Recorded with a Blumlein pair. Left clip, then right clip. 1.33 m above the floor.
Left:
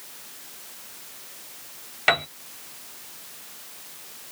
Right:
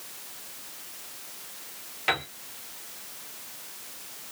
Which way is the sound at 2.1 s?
25° left.